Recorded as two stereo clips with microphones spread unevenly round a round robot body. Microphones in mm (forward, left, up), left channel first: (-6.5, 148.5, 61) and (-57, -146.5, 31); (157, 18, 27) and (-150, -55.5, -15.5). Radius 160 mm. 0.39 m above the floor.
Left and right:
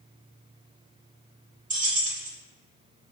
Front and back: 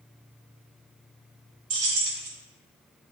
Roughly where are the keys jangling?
Behind.